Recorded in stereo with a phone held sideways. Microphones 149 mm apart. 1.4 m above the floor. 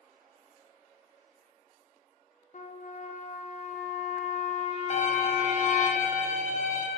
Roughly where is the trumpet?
Left.